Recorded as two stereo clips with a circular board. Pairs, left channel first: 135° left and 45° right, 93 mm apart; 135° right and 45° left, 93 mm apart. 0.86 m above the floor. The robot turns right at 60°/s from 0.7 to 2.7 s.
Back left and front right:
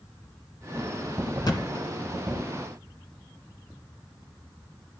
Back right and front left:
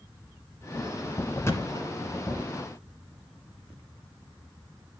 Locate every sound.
1.4 s a thud: 170° left, 1.4 m; by 2.1 s 150° right, 1.4 m